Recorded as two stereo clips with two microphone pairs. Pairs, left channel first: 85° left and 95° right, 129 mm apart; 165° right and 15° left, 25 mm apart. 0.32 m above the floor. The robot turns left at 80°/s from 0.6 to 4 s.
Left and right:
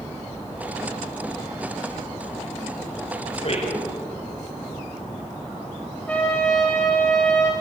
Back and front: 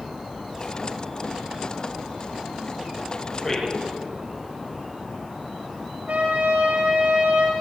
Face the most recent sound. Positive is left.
turn(degrees=5)